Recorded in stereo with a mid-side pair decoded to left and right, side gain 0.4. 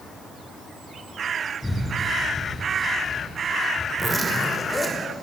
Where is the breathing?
15° left, 7.5 m.